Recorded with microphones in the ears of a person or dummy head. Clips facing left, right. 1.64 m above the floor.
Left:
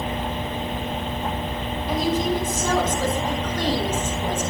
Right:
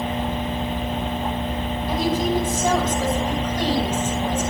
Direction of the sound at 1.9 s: 10° right (ahead or behind).